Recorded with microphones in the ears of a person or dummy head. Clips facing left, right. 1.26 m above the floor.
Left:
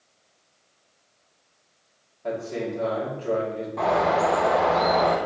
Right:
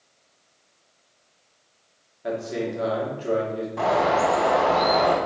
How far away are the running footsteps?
No running footsteps in this recording.